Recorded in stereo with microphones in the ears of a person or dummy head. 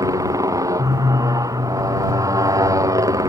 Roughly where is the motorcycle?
Centre.